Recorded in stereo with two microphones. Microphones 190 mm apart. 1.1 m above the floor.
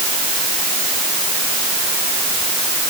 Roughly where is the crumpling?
I don't hear crumpling.